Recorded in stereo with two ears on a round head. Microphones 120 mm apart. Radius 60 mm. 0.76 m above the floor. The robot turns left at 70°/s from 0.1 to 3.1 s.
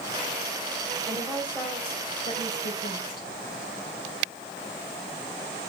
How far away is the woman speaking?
About 3.5 m.